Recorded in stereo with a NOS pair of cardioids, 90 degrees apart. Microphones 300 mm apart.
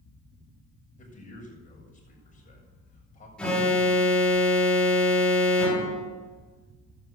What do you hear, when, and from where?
1.0 s a man speaking: 25° left, 7.5 m
3.4 s an alarm: 5° left, 5 m